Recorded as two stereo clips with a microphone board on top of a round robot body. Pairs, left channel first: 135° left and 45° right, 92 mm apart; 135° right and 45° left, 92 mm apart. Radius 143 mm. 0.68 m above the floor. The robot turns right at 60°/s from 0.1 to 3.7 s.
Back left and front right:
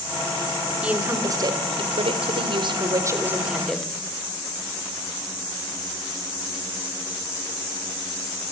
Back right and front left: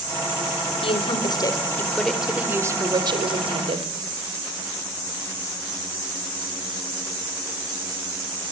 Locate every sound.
0.8 s a woman speaking: 125° right, 3.5 m; by 3.9 s 50° left, 3.5 m